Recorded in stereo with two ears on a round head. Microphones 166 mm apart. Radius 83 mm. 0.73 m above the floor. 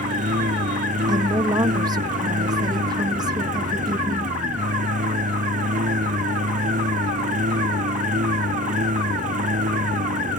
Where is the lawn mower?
40° right (ahead or behind).